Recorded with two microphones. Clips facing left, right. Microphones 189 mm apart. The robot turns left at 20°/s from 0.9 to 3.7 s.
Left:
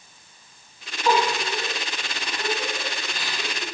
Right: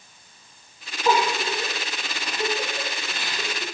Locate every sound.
1.1 s a giggle: 15° right (ahead or behind), 6 m; by 3.6 s 65° right (ahead or behind), 6 m